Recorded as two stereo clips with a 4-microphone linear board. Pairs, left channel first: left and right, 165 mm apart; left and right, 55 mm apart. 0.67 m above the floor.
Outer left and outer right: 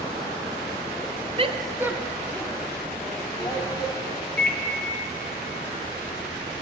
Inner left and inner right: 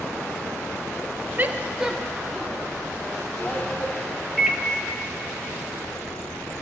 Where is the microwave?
10° left (ahead or behind), 0.9 m.